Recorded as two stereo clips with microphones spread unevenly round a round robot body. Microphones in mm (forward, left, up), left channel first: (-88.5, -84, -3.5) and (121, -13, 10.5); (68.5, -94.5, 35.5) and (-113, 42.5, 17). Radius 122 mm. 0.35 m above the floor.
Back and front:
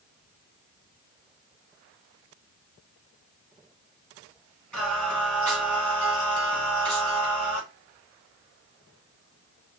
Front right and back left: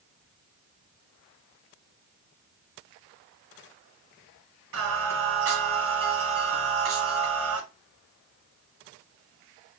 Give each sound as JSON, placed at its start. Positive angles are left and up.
{"t": 4.7, "sound": "singing", "azimuth_deg": 110, "distance_m": 1.3}